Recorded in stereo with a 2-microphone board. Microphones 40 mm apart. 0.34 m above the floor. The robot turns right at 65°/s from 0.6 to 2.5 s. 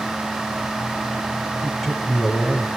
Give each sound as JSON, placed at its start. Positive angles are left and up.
{"t": 1.6, "sound": "a man speaking", "azimuth_deg": -10, "distance_m": 6.0}